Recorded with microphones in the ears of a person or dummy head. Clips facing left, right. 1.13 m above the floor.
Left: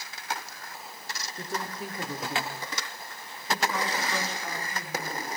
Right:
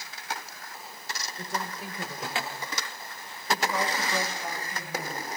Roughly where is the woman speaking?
Left.